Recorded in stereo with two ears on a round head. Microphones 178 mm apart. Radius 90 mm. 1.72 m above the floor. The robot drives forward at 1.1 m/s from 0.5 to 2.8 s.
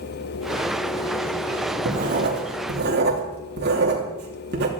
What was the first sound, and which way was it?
Writing, 40° right (ahead or behind).